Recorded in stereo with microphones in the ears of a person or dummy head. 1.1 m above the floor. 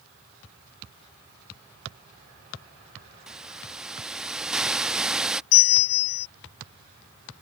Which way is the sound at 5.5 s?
65° left (ahead or behind).